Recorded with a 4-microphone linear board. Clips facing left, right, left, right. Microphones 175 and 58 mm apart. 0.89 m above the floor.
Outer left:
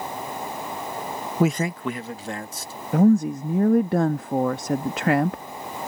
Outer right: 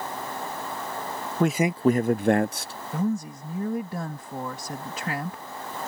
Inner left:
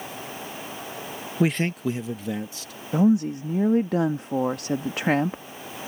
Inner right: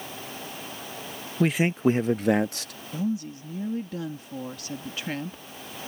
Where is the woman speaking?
70° left (ahead or behind).